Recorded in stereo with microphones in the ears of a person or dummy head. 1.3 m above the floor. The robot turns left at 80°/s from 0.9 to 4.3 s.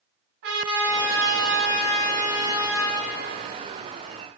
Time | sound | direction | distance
0.4 | a trumpet | 65° right | 2.5 m